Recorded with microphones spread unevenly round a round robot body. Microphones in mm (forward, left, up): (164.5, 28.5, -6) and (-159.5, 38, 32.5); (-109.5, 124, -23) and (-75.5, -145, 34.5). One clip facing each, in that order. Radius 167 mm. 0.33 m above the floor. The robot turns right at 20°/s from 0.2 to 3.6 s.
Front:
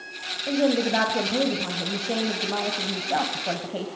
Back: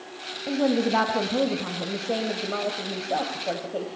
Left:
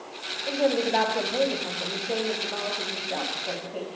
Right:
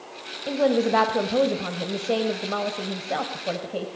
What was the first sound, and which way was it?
A woman speaking, 115° right.